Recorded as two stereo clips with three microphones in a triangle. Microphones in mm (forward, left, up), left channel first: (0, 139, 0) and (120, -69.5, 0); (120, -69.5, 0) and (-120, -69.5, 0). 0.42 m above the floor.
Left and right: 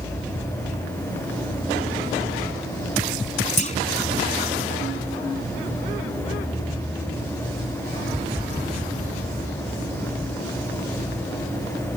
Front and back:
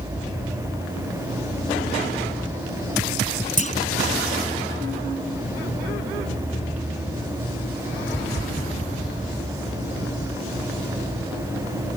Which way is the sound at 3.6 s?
60° left.